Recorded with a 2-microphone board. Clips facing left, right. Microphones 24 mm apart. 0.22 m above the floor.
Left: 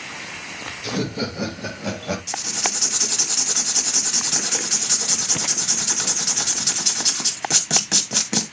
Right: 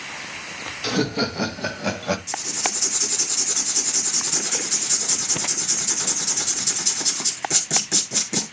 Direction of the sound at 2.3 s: 30° left (ahead or behind).